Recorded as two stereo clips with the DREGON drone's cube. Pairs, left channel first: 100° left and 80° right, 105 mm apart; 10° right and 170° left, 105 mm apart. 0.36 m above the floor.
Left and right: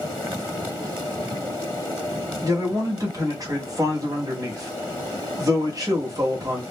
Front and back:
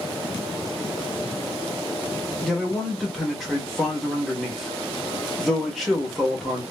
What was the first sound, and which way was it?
A man speaking, 95° right.